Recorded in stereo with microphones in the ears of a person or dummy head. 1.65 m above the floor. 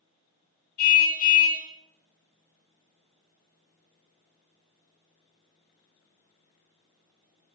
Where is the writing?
No writing in this recording.